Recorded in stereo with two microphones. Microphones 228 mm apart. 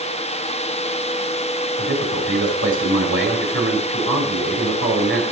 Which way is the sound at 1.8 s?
70° right (ahead or behind).